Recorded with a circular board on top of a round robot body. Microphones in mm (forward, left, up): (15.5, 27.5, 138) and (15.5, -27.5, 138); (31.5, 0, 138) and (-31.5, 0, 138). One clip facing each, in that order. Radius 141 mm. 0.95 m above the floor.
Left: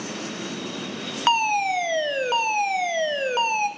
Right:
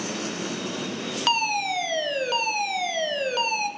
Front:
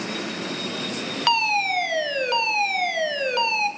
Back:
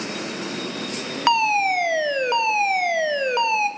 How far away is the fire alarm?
About 1.3 m.